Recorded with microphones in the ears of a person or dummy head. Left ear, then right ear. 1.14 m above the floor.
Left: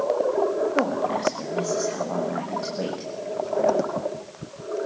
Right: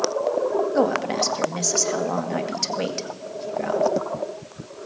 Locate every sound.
0.8 s a woman speaking: 60° right (ahead or behind), 2 m